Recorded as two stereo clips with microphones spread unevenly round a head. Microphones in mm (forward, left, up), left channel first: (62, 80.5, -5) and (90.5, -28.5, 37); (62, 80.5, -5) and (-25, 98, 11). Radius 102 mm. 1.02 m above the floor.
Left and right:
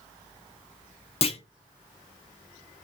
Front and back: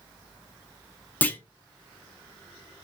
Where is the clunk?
65° left, 0.8 m.